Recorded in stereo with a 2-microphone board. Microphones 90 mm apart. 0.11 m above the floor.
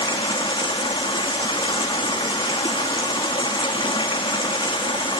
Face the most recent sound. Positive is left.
turn(degrees=75)  # may be behind; listen again after turning